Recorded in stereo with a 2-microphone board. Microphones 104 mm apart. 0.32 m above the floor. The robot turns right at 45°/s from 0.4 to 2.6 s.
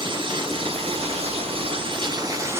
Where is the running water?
125° right, 1.1 m; by 2.6 s 25° right, 1.1 m.